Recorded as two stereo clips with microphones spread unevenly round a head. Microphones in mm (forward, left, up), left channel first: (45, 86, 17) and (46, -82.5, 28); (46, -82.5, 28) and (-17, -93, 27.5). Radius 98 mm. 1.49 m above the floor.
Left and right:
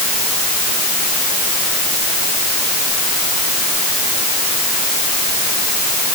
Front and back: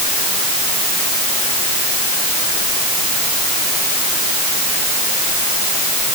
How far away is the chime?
No chime in this recording.